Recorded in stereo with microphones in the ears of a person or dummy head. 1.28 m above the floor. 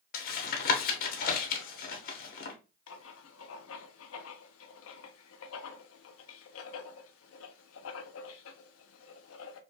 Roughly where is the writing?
Left.